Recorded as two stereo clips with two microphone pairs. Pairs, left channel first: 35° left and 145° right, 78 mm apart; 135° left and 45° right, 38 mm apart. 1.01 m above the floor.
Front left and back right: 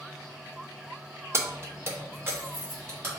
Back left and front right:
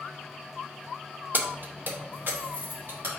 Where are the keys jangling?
90° right, 0.5 m; by 3.2 s 85° right, 1.7 m.